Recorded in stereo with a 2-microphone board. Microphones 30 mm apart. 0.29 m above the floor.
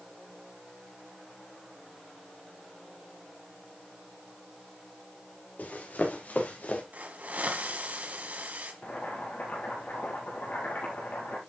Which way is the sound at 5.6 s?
70° left (ahead or behind).